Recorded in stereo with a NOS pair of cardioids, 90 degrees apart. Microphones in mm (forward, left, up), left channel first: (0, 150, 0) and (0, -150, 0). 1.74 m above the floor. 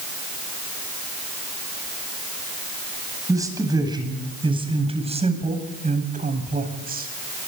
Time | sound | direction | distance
3.3 | a man speaking | 10° right | 9.5 m